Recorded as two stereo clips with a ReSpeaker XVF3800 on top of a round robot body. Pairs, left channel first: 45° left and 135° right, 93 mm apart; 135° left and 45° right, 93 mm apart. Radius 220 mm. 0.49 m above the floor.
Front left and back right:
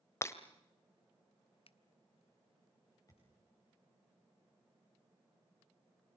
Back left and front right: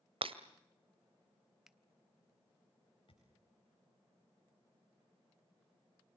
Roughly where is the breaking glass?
Ahead.